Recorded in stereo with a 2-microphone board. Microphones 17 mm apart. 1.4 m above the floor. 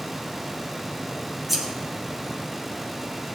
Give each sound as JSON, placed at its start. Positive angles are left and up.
{"t": 1.5, "sound": "scissors", "side_deg": -5, "distance_m": 3.0}